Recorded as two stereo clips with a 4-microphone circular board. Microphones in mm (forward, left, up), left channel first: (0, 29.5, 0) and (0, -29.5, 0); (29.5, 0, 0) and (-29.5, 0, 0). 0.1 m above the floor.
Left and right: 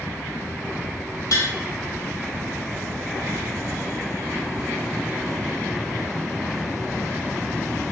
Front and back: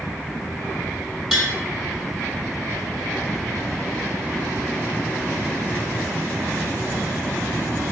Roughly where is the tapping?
Left.